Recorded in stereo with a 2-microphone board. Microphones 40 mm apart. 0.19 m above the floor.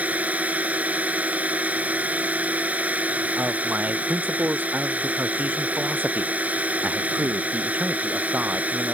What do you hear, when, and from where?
0.0 s a drone: 35° right (ahead or behind)
3.4 s a man speaking: 45° right (ahead or behind)